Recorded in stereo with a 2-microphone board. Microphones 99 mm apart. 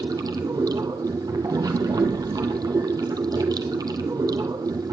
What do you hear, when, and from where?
0.0 s running water: 45° right (ahead or behind), 1.1 m